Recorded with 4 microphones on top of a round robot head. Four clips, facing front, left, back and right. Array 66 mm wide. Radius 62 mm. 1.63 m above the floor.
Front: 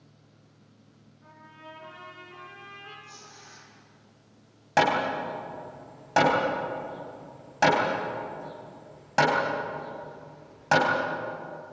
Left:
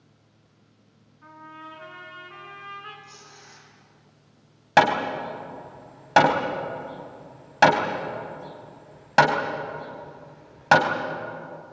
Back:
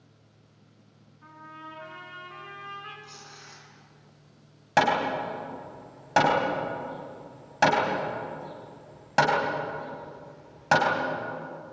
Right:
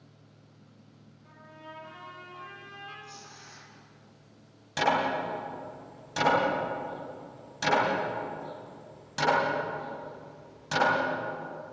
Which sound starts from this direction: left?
Hammering, at 4.8 s.